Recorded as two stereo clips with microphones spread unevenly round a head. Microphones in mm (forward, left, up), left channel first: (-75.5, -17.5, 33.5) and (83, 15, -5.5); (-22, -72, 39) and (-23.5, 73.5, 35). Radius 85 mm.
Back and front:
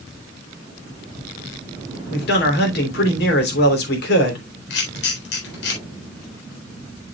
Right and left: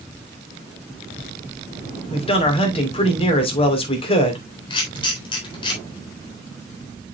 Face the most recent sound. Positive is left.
turn(degrees=-145)